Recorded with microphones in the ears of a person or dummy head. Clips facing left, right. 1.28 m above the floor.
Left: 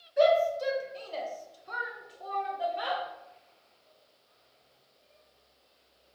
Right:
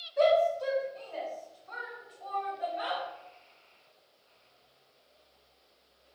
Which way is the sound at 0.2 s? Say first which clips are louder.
Left 1 dB; 15° left (ahead or behind).